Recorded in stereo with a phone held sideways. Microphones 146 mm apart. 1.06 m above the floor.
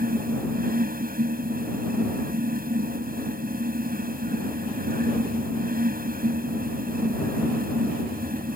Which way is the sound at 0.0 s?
85° right.